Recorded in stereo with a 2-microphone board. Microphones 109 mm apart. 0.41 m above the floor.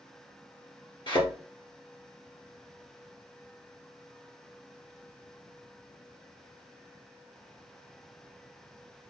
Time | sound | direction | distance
1.1 | a thud | 45° left (ahead or behind) | 1.6 m